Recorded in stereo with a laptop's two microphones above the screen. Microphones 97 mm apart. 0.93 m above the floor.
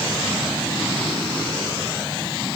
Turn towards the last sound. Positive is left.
No sound to turn to.